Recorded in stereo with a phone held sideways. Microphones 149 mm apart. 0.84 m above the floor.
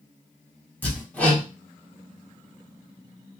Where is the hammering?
10° left (ahead or behind), 1.2 m.